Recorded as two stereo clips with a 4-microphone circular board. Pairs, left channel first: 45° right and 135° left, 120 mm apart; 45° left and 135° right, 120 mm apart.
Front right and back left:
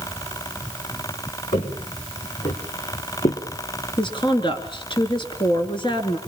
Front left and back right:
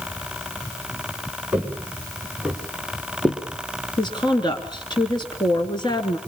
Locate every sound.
1.5 s footsteps: 60° right, 5 m; by 3.4 s 35° right, 3 m
4.0 s a woman speaking: straight ahead, 3 m